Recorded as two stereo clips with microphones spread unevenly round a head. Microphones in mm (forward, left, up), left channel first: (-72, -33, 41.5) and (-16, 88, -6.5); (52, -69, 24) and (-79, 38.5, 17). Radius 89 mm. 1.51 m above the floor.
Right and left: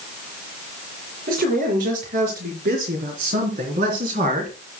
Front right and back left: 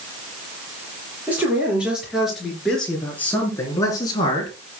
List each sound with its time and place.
1.3 s a man speaking: 60° left, 5.5 m; by 4.6 s 20° left, 3 m